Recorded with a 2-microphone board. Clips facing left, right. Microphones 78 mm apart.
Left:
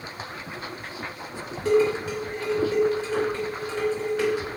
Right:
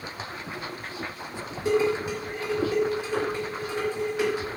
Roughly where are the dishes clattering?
Centre.